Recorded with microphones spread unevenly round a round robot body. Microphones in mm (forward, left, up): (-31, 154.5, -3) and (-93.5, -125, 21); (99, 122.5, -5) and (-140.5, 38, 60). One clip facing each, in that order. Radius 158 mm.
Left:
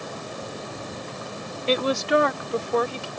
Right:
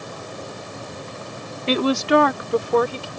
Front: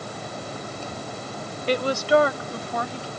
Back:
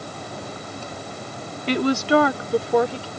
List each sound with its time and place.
1.7 s a woman speaking: 125° right; by 3.1 s 120° right